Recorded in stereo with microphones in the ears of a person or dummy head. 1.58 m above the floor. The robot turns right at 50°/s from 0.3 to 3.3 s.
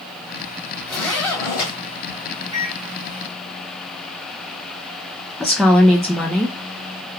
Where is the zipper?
Centre (ahead or behind), 1.5 m; by 1.7 s 20° left (ahead or behind), 1.5 m.